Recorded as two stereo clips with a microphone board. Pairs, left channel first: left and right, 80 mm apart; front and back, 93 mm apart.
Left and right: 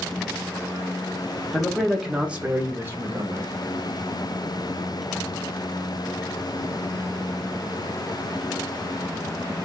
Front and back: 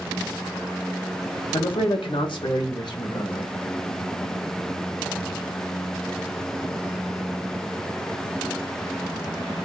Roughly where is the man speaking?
Ahead.